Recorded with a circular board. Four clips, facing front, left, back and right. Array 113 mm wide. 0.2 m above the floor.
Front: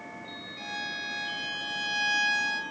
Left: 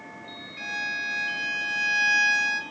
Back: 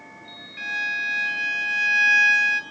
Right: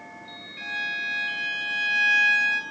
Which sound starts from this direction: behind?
A violin, at 0.6 s.